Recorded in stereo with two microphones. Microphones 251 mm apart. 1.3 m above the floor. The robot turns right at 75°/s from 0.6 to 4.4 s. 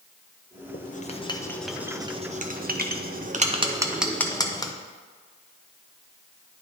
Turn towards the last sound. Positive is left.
turn(degrees=15)  # may be behind; listen again after turning